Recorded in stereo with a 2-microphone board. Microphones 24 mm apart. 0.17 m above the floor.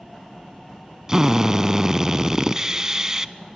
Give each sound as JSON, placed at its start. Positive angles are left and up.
{"t": 1.1, "sound": "a drill", "side_deg": -25, "distance_m": 0.6}